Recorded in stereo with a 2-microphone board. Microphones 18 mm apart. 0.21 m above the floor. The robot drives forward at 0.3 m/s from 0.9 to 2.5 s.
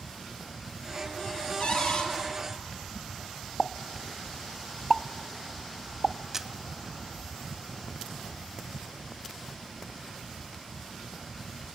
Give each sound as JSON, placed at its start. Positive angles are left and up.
{"t": 1.6, "sound": "a cupboard door", "side_deg": 55, "distance_m": 4.5}
{"t": 3.6, "sound": "a pop", "side_deg": 20, "distance_m": 0.7}
{"t": 6.3, "sound": "a camera shutter", "side_deg": -20, "distance_m": 1.0}